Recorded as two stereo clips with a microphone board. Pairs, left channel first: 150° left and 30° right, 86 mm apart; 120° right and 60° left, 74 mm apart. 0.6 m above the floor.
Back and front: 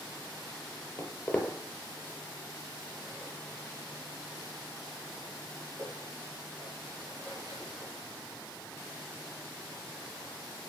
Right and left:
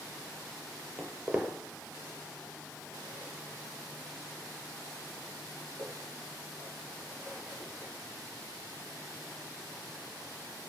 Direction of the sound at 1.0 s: 125° left.